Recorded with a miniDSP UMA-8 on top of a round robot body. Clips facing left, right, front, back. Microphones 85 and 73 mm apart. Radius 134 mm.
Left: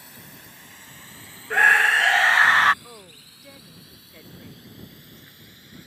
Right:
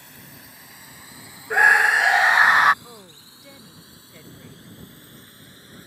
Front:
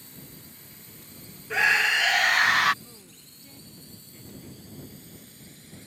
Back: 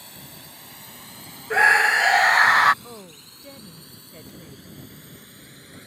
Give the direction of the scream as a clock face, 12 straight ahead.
5 o'clock.